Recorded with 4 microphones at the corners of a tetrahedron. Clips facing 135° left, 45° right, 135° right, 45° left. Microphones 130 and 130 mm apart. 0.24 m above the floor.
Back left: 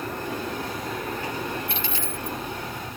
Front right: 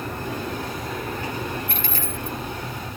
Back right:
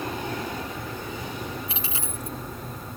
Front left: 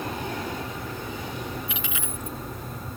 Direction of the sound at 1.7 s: 80° right.